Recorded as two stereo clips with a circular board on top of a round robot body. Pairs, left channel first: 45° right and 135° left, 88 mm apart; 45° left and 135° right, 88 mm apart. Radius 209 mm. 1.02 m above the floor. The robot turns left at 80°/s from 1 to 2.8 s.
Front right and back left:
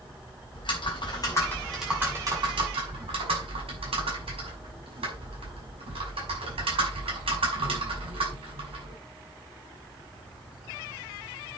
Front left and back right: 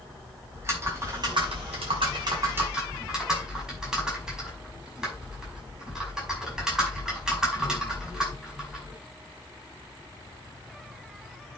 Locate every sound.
0.5 s typing on a keyboard: 75° right, 5.5 m; by 9.0 s 140° left, 5.5 m